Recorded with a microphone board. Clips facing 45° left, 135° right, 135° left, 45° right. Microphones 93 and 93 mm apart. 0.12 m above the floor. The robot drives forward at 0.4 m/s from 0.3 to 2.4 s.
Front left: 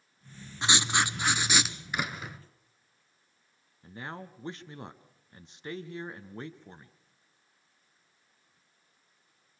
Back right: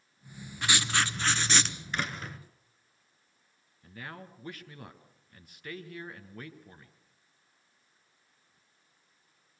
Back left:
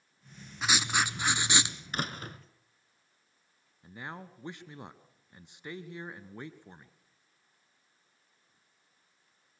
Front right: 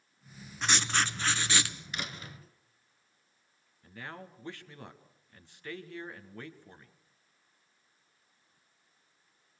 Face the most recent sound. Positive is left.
turn(degrees=80)